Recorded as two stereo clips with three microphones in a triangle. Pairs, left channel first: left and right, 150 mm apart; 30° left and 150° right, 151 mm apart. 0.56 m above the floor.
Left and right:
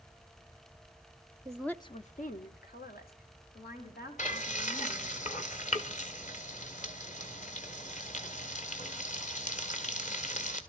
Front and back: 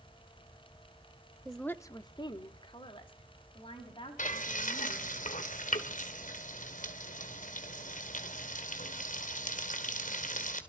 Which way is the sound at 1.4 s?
75° right.